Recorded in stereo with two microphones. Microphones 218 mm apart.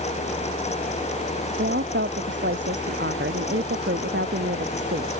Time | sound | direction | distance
1.6 | a woman speaking | 60° right (ahead or behind) | ?